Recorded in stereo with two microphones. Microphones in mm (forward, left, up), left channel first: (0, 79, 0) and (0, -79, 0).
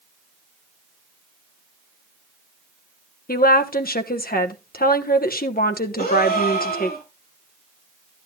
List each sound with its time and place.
3.3 s a woman speaking: 70° left (ahead or behind), 1.1 m
6.0 s a gasp: 70° left (ahead or behind), 3 m